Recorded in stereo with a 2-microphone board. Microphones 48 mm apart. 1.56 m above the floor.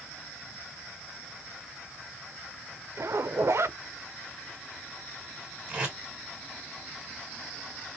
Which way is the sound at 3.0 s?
65° right (ahead or behind).